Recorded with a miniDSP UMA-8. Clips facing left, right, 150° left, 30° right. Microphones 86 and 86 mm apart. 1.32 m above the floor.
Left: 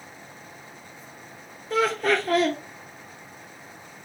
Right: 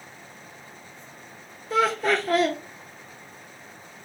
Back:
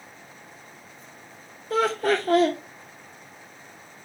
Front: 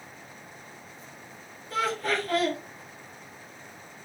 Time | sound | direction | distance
1.7 | laughter | straight behind | 0.7 m